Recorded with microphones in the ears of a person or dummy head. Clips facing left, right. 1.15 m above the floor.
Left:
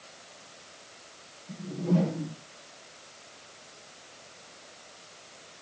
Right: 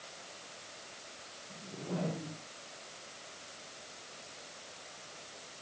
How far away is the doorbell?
I don't hear a doorbell.